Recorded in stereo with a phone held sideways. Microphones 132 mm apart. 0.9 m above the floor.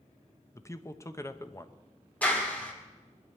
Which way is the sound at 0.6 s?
20° left (ahead or behind).